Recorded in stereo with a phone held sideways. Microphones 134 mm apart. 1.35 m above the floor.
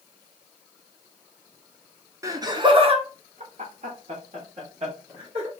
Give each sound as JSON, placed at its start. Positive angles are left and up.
{"t": 2.2, "sound": "laughter", "side_deg": -25, "distance_m": 0.9}